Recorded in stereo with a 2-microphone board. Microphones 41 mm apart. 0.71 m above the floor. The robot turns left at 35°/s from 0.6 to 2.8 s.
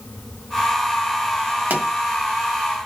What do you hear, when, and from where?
1.7 s a pop: 50° right (ahead or behind), 1.2 m; by 1.9 s 55° right (ahead or behind), 1.2 m